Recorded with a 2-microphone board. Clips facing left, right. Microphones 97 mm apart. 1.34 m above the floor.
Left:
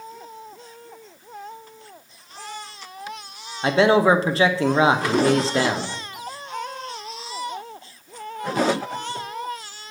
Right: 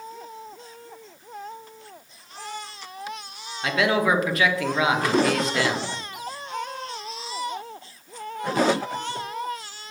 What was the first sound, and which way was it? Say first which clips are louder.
A man speaking: left 6 dB; 30° left (ahead or behind).